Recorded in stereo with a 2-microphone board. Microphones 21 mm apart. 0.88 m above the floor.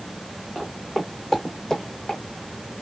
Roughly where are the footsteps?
Centre.